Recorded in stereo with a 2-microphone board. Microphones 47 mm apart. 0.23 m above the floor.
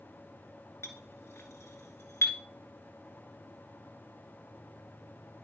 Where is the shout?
No shout in this recording.